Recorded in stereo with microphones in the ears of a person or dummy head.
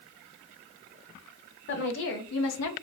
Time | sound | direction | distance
1.7 | a woman speaking | 50° left (ahead or behind) | 1.1 m